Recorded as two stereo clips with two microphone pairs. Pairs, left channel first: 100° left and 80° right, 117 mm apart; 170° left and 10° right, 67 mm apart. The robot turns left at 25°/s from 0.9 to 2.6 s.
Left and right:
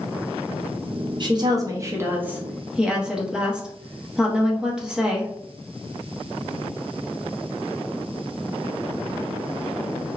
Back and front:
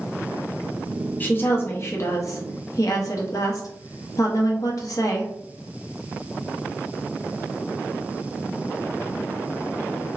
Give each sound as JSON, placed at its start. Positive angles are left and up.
{"t": 1.2, "sound": "a woman speaking", "azimuth_deg": -130, "distance_m": 0.7}